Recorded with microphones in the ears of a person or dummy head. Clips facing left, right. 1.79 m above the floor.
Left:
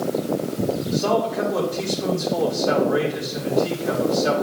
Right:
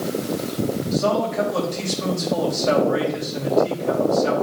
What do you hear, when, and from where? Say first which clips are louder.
0.9 s a man speaking: right 1 dB; 55° right (ahead or behind), 3.5 m